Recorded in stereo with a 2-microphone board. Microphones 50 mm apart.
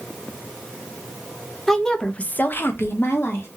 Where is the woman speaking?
5° left (ahead or behind), 0.7 m; by 3.5 s 50° left (ahead or behind), 0.8 m.